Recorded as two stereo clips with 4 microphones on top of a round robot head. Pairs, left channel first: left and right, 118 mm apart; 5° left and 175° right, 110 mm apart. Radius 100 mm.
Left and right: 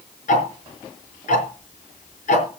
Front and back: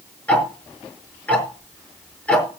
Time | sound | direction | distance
0.3 | ticking | 80° left | 5 m